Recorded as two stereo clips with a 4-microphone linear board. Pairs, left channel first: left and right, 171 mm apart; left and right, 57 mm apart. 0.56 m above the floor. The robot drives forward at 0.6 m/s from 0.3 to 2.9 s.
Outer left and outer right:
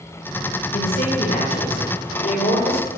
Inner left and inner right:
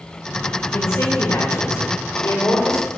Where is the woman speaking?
60° left (ahead or behind), 2 m; by 2.9 s 45° left (ahead or behind), 2.5 m.